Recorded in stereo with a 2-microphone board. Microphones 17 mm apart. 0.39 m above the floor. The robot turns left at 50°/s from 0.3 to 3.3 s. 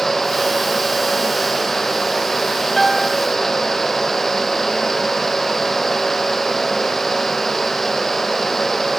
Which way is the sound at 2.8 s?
10° left (ahead or behind).